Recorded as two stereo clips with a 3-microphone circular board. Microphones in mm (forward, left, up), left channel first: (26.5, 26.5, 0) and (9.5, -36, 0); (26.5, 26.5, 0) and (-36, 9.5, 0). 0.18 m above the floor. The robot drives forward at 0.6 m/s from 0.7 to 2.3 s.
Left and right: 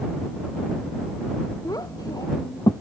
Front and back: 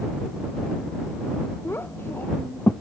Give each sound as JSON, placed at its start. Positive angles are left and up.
{"t": 1.6, "sound": "a child speaking", "azimuth_deg": 65}